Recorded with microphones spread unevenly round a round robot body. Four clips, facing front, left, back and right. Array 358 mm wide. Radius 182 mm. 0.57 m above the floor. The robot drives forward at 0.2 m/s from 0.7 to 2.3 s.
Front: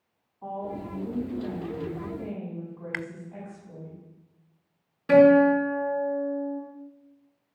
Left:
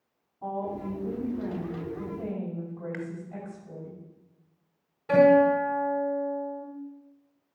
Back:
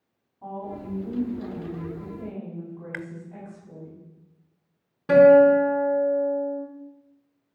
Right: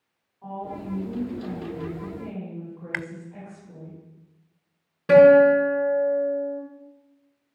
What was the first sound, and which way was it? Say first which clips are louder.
A woman speaking: left 2 dB, front 1 dB; 120° left.